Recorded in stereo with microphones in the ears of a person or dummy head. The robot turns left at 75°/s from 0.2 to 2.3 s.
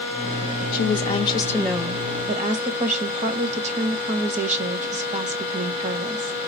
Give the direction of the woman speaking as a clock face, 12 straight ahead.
9 o'clock.